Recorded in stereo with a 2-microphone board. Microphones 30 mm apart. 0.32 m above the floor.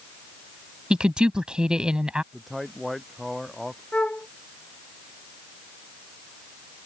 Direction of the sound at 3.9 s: 45° left (ahead or behind).